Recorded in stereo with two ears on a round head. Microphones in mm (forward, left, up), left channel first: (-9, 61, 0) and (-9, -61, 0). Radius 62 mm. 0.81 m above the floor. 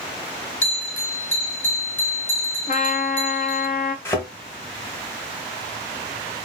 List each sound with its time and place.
0.6 s a bell: 15° left (ahead or behind), 1.4 m
2.7 s a trumpet: 60° left (ahead or behind), 0.8 m
4.0 s a thud: 20° left (ahead or behind), 1.2 m